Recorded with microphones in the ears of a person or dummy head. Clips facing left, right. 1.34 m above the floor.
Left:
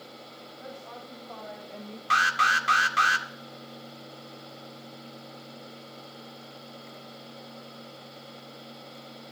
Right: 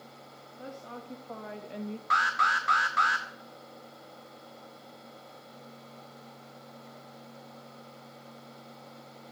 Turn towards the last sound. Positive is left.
turn(degrees=35)  # may be behind; listen again after turning